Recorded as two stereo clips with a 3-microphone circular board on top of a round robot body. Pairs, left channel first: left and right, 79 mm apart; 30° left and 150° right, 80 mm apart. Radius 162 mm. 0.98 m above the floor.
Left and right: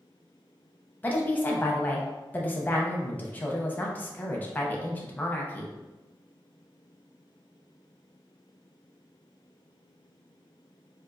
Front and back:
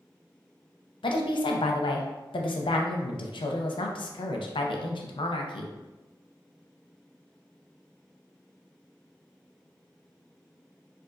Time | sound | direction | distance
1.0 | a woman speaking | 20° left | 0.6 m